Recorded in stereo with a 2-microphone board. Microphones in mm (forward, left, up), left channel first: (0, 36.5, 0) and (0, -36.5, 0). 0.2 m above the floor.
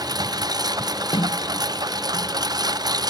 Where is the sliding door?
75° left (ahead or behind).